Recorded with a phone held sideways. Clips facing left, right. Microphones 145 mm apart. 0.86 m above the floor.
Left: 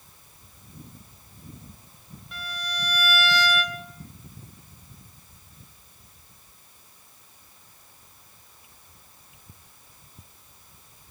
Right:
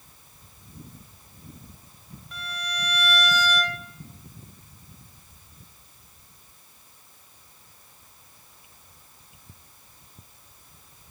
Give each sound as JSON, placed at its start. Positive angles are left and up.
{"t": 2.3, "sound": "a violin", "side_deg": 0, "distance_m": 1.5}